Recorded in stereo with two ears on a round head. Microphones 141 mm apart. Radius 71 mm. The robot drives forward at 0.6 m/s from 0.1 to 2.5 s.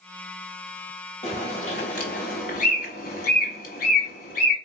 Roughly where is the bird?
Left.